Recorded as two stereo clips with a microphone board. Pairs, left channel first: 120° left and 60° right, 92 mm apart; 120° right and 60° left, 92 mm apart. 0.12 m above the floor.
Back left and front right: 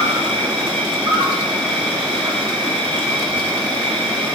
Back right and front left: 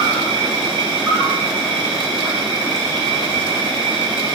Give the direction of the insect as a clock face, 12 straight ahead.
1 o'clock.